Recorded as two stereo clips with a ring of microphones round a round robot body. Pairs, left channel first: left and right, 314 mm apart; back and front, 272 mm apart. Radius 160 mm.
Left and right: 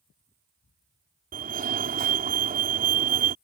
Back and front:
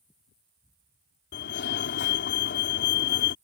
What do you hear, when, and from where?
1.3 s a fire alarm: 145° right